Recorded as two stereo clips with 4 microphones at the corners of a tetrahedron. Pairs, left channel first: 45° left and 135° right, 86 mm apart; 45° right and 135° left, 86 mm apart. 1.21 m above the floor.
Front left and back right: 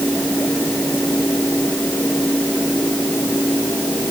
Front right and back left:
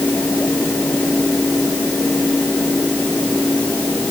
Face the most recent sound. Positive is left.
No sound to turn to.